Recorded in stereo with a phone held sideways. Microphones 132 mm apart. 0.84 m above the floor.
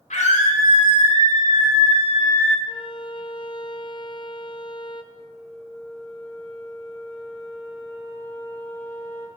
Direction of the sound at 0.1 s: 65° left (ahead or behind).